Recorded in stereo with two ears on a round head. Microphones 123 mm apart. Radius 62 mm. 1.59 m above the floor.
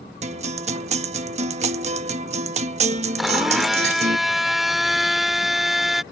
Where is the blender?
Centre (ahead or behind).